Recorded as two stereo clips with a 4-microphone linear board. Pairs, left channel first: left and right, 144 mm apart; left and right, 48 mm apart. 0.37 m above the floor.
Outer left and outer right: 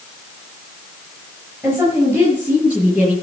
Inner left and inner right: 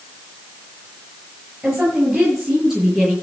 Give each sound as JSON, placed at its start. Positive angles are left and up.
{"t": 1.6, "sound": "a woman speaking", "side_deg": -15, "distance_m": 7.0}